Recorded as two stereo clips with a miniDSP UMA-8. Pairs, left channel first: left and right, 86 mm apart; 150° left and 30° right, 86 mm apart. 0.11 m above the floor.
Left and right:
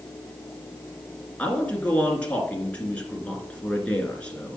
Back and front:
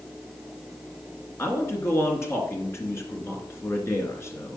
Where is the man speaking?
150° left, 1.9 m.